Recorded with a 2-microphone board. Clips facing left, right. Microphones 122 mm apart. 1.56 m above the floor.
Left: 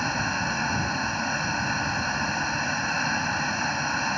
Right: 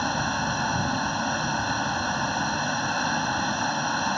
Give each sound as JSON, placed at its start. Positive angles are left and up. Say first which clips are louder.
{"t": 0.0, "sound": "a vehicle", "louder": "right 2 dB", "side_deg": -10}